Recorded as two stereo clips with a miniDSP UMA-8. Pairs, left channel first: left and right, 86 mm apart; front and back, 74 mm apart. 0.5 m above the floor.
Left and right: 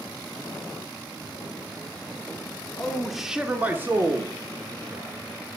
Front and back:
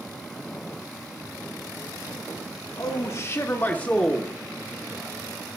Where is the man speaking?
10° left, 1.2 m; by 5.6 s 115° right, 1.6 m.